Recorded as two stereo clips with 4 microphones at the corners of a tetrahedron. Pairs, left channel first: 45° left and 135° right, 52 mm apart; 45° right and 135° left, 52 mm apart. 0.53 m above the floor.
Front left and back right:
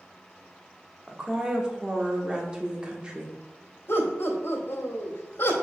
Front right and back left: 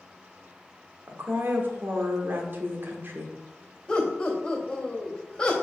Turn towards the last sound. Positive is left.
turn(degrees=30)